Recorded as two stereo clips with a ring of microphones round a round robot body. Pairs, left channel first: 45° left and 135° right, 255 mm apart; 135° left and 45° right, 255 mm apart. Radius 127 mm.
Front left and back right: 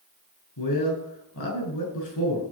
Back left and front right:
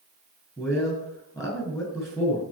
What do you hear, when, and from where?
0.6 s a man speaking: 55° left, 6.5 m